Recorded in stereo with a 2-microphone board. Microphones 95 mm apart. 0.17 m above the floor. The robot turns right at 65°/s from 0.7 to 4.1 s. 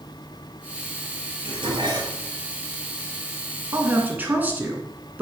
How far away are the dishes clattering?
About 2.5 m.